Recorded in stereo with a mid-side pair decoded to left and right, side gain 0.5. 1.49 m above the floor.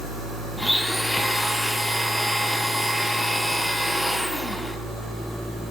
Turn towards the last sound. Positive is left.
turn(degrees=5)